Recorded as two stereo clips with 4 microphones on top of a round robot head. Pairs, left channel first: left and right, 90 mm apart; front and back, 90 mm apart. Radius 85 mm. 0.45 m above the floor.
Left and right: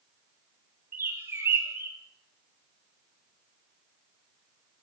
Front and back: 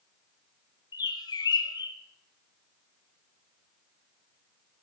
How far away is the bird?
About 0.6 m.